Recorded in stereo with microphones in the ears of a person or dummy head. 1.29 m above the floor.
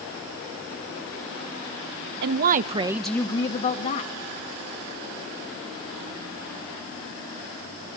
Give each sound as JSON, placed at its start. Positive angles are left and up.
{"t": 2.2, "sound": "a woman speaking", "side_deg": -70, "distance_m": 1.2}